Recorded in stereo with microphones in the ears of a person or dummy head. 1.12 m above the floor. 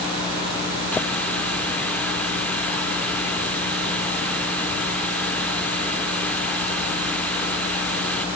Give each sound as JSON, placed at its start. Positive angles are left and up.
{"t": 0.9, "sound": "a running tap", "side_deg": 0}